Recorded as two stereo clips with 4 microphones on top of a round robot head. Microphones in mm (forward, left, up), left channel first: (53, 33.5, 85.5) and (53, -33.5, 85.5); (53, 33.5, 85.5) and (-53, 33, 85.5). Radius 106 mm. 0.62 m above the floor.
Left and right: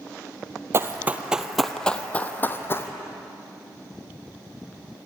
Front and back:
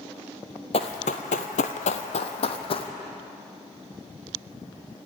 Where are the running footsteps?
45° right, 1.1 m; by 2.9 s 40° left, 1.7 m.